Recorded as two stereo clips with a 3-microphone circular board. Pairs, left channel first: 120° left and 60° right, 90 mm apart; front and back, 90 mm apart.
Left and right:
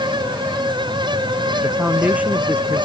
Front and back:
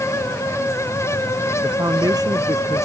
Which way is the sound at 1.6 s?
135° right.